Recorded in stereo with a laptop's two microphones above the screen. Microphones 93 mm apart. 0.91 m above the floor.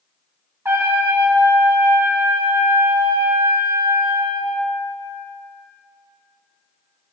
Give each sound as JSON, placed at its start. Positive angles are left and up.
{"t": 0.7, "sound": "a trumpet", "side_deg": -25, "distance_m": 1.4}